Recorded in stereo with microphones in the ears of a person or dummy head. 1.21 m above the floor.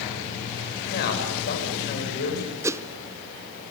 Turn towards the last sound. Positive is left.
turn(degrees=-10)  # may be behind; listen again after turning